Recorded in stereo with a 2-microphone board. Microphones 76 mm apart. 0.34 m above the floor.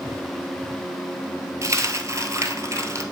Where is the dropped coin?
40° right (ahead or behind), 1.1 m.